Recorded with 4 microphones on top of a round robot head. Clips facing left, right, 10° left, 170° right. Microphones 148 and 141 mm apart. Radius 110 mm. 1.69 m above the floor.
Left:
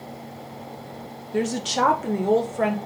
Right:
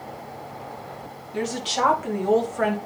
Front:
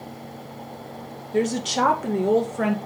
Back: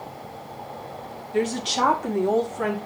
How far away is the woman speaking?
About 1.6 m.